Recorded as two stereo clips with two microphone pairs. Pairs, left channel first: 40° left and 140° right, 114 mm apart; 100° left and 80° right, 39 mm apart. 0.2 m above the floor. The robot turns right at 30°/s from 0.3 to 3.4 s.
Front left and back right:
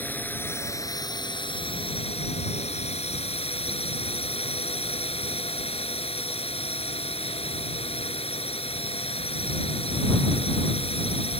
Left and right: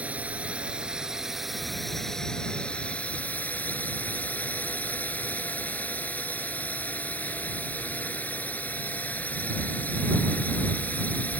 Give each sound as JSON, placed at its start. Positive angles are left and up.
{"t": 0.0, "sound": "a drone", "azimuth_deg": -35}